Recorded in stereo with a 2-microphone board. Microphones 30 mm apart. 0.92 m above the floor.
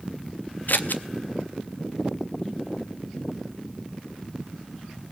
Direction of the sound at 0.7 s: 85° left.